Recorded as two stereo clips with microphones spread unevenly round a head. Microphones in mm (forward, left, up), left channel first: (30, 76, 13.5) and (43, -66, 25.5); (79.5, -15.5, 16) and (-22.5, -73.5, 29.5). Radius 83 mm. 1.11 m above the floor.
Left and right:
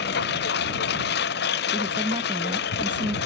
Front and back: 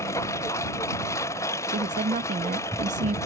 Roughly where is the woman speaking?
Behind right.